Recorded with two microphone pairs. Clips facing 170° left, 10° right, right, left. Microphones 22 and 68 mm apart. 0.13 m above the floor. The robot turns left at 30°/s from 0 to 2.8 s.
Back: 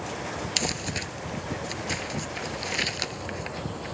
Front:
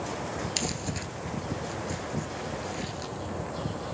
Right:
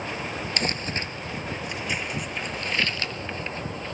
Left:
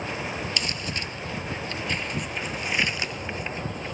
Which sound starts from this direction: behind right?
Crumpling, at 0.6 s.